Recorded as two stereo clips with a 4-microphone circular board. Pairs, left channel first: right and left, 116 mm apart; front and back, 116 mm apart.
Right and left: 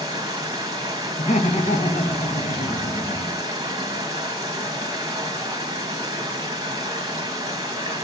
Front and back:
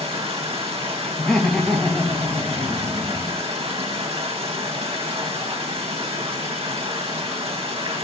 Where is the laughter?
85° right, 1.2 m.